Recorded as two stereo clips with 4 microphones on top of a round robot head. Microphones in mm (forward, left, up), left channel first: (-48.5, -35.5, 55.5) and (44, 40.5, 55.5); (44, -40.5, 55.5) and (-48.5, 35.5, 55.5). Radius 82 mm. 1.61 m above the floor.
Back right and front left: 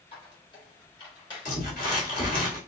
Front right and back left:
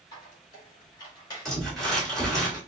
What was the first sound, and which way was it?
A squeak, 90° right.